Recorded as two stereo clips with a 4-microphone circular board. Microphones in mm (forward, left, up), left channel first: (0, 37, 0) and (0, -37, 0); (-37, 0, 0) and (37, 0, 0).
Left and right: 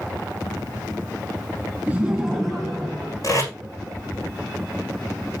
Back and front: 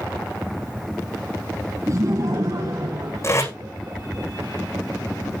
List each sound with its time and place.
1.9 s laughter: 25° right, 2 m; by 4.2 s 25° left, 4.5 m
3.2 s tape being pulled: 130° left, 8 m